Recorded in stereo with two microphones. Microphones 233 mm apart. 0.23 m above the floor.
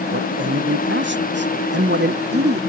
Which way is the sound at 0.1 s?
55° right (ahead or behind).